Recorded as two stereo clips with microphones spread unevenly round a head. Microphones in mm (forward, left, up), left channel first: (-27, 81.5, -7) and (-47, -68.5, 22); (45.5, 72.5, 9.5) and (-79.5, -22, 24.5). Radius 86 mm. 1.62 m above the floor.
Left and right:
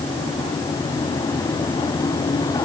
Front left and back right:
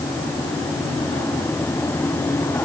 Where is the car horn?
No car horn in this recording.